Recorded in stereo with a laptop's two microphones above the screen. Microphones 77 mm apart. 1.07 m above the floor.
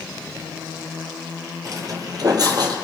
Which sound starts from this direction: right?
Footsteps, at 1.6 s.